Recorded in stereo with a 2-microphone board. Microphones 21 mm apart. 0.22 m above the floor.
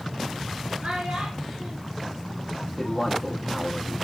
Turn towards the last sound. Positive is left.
turn(degrees=15)  # may be behind; listen again after turning